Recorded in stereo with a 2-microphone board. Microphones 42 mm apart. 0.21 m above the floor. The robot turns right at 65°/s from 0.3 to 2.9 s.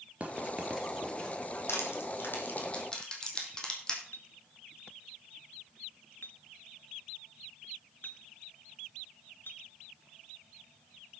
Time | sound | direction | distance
0.2 | writing | 30° right (ahead or behind) | 3 m
1.7 | crushing | 85° left | 3.5 m
4.1 | a clink | 55° left (ahead or behind) | 1.5 m